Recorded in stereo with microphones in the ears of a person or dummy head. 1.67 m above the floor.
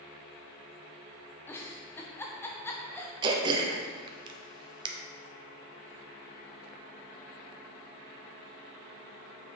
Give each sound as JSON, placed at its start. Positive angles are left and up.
{"t": 1.5, "sound": "a giggle", "side_deg": 10, "distance_m": 0.7}
{"t": 3.2, "sound": "throat clearing", "side_deg": -30, "distance_m": 0.9}